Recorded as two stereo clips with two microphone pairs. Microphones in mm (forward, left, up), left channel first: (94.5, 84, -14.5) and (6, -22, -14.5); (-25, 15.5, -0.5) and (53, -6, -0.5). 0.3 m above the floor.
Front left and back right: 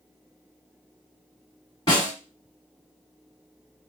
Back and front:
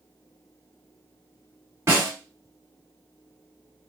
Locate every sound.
1.9 s a snare drum: 25° left, 2 m